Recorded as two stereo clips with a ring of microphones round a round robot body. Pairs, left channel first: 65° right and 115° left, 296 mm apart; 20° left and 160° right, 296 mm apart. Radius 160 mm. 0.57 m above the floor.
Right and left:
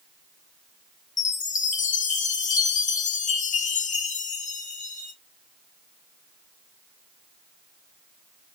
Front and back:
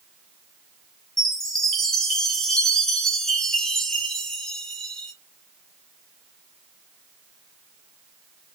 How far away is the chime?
About 0.6 m.